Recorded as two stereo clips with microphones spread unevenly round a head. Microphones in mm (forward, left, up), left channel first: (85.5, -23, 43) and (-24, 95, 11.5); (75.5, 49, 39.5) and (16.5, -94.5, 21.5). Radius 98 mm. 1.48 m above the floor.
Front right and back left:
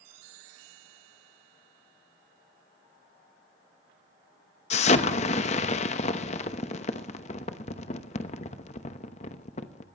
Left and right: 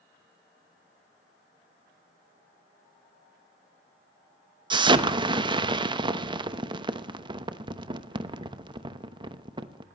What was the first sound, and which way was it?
An explosion, 55° right.